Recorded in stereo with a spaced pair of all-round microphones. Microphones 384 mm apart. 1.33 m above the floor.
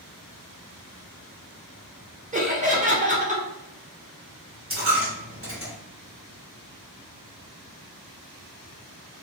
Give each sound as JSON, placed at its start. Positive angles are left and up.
{"t": 2.3, "sound": "laughter", "side_deg": -20, "distance_m": 1.1}
{"t": 4.7, "sound": "a dropped coin", "side_deg": -35, "distance_m": 1.2}